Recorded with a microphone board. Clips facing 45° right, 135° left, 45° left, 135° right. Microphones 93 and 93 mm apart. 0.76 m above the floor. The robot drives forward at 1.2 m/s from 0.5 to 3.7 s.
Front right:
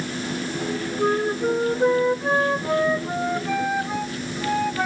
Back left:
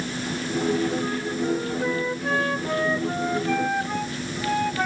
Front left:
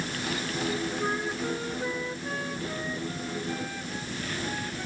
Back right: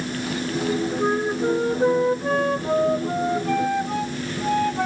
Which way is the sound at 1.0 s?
75° right.